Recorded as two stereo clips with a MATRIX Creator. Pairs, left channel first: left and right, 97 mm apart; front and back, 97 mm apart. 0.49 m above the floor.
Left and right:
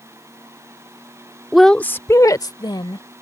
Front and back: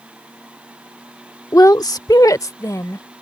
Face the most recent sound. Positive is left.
turn(degrees=55)